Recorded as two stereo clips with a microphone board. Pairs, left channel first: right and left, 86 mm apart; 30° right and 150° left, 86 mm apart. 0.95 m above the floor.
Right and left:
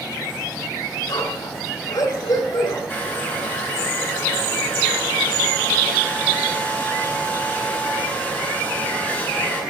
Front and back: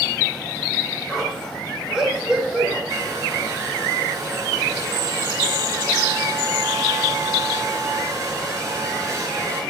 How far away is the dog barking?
About 4.5 m.